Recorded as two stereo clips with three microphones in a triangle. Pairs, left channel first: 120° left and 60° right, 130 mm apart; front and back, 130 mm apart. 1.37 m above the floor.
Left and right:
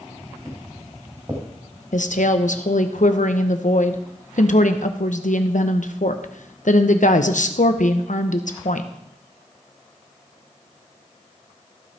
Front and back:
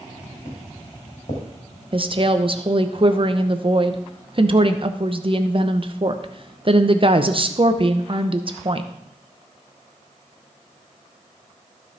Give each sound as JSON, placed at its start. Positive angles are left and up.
{"t": 0.5, "sound": "footsteps", "azimuth_deg": 0, "distance_m": 3.5}
{"t": 1.9, "sound": "a woman speaking", "azimuth_deg": 130, "distance_m": 0.8}